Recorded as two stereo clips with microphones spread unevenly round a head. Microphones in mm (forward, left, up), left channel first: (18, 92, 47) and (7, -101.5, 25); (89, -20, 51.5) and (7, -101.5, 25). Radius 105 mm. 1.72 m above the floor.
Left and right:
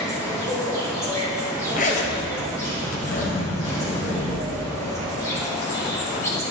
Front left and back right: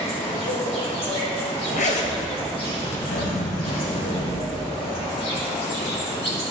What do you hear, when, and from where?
0.0 s an insect: 15° left, 3 m
1.7 s a zipper: 35° left, 1.1 m